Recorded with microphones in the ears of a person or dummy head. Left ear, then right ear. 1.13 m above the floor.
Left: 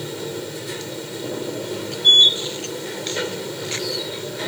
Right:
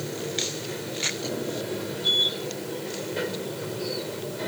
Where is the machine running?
35° left (ahead or behind).